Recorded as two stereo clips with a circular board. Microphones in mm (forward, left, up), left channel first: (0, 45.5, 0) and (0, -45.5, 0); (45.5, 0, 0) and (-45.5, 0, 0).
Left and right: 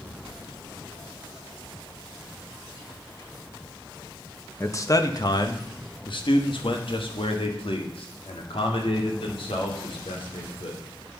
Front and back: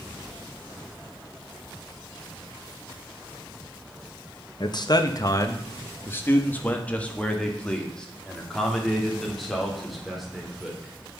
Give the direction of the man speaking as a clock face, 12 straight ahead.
11 o'clock.